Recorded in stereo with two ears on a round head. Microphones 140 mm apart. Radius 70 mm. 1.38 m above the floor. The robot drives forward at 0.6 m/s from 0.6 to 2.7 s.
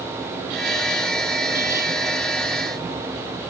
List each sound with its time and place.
Only background noise.